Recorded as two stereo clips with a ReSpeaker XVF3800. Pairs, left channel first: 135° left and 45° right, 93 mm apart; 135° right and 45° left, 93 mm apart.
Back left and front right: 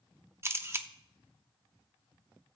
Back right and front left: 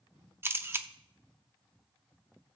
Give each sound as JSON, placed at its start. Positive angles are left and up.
{"t": 0.4, "sound": "a camera shutter", "azimuth_deg": 0, "distance_m": 0.8}